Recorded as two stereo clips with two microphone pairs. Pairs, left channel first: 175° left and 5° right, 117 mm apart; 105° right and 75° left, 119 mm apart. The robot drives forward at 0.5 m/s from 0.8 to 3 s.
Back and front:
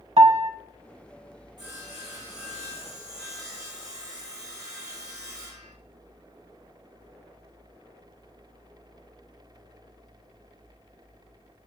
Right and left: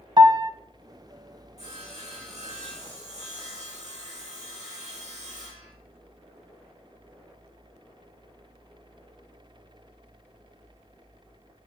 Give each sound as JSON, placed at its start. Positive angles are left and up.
{"t": 0.2, "sound": "a piano", "azimuth_deg": 20, "distance_m": 0.7}
{"t": 1.6, "sound": "sawing", "azimuth_deg": 45, "distance_m": 5.5}